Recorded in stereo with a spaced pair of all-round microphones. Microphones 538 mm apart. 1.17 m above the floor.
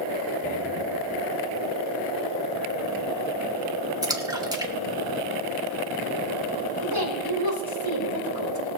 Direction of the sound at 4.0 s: 10° right (ahead or behind).